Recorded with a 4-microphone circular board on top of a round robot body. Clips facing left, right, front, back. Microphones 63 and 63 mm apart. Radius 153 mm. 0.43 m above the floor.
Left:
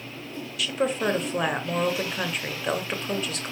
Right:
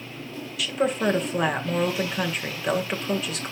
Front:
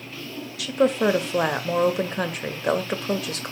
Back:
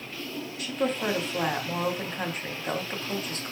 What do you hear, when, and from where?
0.6 s a woman speaking: straight ahead, 2.5 m